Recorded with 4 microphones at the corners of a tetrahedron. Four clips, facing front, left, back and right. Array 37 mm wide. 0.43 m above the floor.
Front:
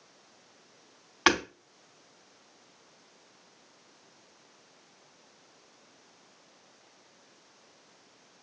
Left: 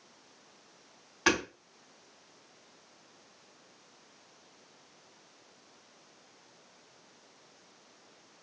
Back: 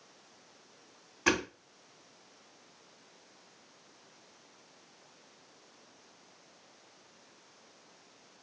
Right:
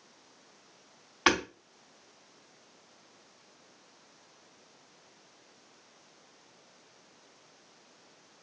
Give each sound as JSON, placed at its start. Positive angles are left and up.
{"t": 1.3, "sound": "hammering", "azimuth_deg": -15, "distance_m": 3.5}